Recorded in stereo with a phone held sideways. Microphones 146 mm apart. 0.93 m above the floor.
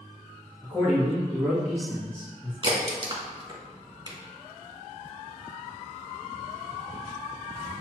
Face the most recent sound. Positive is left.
turn(degrees=-35)  # may be behind; listen again after turning